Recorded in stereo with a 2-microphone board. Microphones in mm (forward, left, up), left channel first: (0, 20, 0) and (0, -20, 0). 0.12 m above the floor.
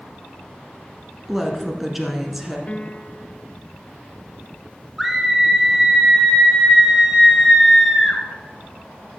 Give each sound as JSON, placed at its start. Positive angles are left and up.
{"t": 1.3, "sound": "a woman speaking", "side_deg": -5, "distance_m": 1.2}
{"t": 2.7, "sound": "a piano", "side_deg": 35, "distance_m": 0.6}
{"t": 5.0, "sound": "a scream", "side_deg": -5, "distance_m": 1.9}